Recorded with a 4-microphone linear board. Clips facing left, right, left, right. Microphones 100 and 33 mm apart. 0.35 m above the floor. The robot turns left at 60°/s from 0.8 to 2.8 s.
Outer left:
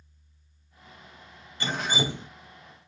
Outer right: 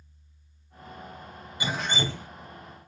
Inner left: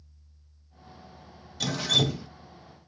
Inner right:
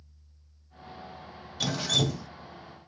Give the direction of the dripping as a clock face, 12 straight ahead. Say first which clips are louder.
Outer left 1 dB, inner left 2 dB; 6 o'clock.